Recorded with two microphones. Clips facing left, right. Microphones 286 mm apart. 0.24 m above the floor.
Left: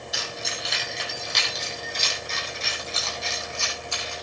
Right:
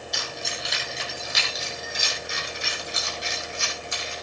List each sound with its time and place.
0.1 s keys jangling: 5° left (ahead or behind), 5 m; by 4.1 s 20° right (ahead or behind), 7 m